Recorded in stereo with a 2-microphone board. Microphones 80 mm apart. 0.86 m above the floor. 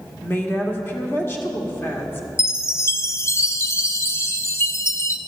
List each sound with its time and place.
0.2 s a woman speaking: 25° left (ahead or behind), 1.9 m
2.4 s a chime: 35° left (ahead or behind), 0.6 m